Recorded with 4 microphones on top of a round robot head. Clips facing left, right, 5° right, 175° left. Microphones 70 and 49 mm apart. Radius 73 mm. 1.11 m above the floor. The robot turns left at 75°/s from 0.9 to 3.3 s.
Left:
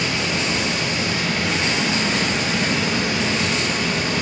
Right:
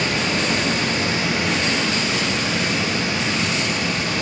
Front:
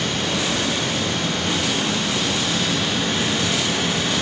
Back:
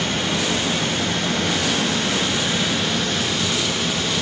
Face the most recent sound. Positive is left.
turn(degrees=50)